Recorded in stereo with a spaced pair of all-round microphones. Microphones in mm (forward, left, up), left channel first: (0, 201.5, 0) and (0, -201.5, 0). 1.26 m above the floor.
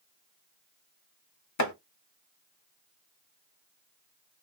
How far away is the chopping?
About 0.6 m.